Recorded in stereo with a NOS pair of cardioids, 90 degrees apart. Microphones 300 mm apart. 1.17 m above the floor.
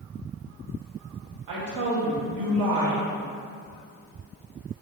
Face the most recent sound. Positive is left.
turn(degrees=-65)